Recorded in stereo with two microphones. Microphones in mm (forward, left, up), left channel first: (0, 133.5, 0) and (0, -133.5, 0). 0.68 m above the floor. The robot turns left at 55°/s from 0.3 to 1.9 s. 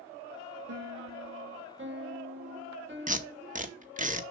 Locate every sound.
0.7 s a piano: 70° right, 1.7 m; by 4.1 s 135° right, 1.7 m
3.1 s tape being pulled: 30° right (ahead or behind), 1.0 m